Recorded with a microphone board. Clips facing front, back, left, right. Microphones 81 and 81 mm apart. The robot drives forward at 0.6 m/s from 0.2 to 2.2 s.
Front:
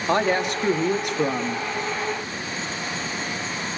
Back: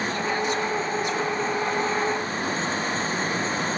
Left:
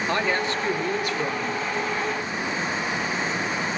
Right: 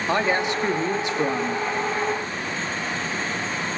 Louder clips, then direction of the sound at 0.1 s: Front 9 dB, right 4 dB; 20° right.